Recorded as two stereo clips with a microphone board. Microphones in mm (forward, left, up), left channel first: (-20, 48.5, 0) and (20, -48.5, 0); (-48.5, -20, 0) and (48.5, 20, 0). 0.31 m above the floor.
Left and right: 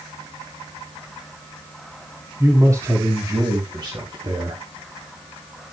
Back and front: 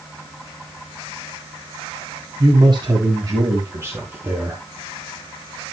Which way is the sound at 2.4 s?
10° right.